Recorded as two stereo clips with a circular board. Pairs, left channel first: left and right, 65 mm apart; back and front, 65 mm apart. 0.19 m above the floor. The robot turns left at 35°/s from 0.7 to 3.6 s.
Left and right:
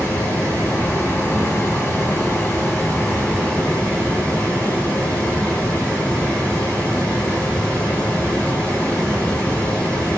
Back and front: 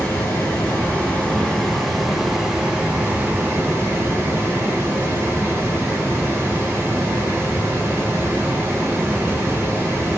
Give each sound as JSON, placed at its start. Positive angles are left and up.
{"t": 0.0, "sound": "running water", "azimuth_deg": 135, "distance_m": 1.3}